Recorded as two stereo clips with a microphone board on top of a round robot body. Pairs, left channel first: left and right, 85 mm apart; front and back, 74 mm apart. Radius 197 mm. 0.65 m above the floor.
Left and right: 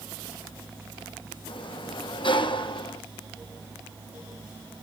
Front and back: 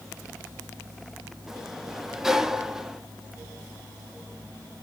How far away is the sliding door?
About 1.2 m.